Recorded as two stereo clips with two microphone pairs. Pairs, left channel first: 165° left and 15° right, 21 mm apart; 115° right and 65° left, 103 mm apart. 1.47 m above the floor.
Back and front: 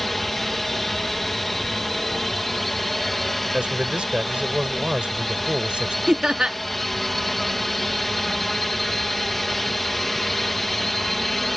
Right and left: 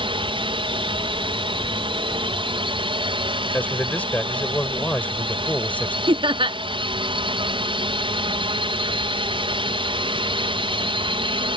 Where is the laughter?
30° left.